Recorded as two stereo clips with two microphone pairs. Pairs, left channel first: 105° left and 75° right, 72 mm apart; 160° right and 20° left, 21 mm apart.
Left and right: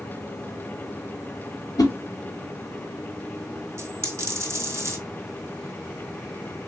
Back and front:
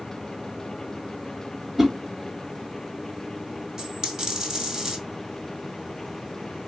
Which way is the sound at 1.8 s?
95° left.